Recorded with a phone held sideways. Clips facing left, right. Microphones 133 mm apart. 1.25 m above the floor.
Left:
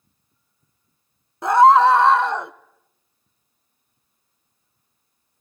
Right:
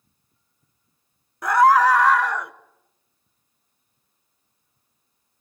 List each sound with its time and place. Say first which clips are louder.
1.4 s a scream: left 3 dB; 25° left (ahead or behind), 0.9 m